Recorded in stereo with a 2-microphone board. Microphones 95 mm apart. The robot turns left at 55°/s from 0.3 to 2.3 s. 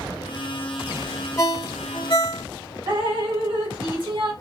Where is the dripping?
55° right (ahead or behind), 1.1 m.